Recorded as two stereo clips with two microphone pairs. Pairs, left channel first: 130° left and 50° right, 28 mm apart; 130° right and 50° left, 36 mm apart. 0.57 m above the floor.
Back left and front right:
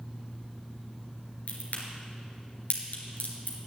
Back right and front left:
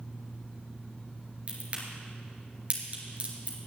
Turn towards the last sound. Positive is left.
turn(degrees=105)